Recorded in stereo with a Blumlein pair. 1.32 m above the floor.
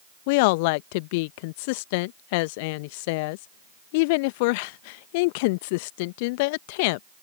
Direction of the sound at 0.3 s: 45° left.